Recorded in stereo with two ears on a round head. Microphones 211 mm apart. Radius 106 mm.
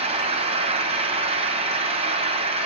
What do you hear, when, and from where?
0.0 s an engine running: 25° right (ahead or behind), 1.1 m